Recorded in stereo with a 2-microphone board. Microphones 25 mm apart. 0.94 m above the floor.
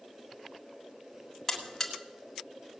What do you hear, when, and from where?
1.5 s a buzzer: 20° left (ahead or behind), 1.8 m